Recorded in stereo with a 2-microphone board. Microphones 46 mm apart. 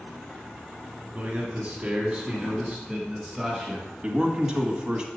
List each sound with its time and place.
1.1 s a man speaking: 30° right (ahead or behind), 1.4 m; by 3.9 s 5° right (ahead or behind), 2 m
4.0 s a man speaking: 15° right (ahead or behind), 1.1 m